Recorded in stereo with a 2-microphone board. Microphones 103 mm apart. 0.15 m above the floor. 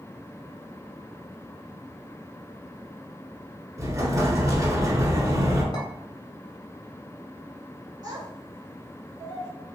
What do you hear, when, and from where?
3.8 s an explosion: 30° right (ahead or behind), 0.9 m
5.7 s a clink: 55° left (ahead or behind), 1.3 m
8.0 s a child speaking: 35° right (ahead or behind), 1.2 m